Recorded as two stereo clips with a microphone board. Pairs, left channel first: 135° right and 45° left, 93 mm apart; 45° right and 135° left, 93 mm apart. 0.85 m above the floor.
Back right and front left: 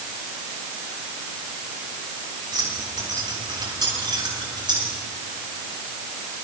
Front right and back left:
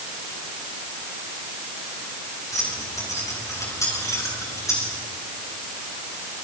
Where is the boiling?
I don't hear boiling.